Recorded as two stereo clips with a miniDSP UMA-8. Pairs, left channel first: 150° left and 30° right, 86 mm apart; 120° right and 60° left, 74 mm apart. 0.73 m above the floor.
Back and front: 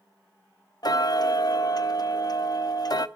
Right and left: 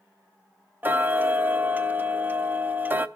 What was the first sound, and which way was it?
Ticking, 120° left.